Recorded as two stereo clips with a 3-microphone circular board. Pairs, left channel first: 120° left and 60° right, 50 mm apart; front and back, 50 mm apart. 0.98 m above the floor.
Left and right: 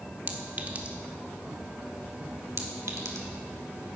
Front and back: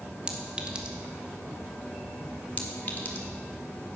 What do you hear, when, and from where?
0.3 s a clink: 110° right, 1.1 m
2.6 s a clink: 55° right, 1.3 m